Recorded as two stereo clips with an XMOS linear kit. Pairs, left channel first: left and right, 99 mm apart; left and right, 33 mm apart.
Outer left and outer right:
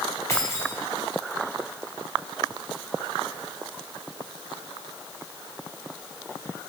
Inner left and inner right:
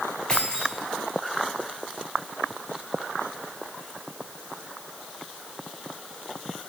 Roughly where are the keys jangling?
Left.